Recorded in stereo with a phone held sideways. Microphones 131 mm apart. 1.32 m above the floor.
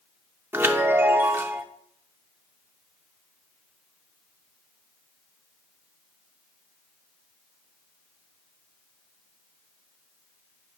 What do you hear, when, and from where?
0.5 s a chime: 15° right (ahead or behind), 0.6 m